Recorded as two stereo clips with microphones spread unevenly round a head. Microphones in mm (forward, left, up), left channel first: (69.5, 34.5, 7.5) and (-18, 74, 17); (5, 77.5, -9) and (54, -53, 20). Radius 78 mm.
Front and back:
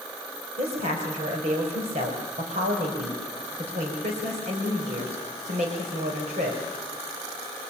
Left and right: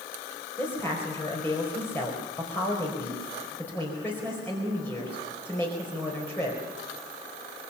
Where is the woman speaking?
170° right, 4.5 m.